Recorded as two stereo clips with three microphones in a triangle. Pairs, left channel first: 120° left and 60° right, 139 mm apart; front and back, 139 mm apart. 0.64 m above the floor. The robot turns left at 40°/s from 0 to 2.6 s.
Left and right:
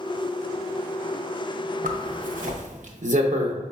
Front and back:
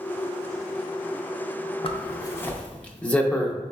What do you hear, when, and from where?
1.8 s a zipper: 50° right, 0.6 m; by 3.5 s 80° right, 0.6 m